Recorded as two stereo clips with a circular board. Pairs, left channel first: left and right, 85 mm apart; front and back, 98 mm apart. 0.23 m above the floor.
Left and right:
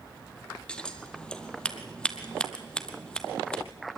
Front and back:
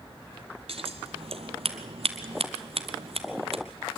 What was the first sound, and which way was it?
Scissors, 170° left.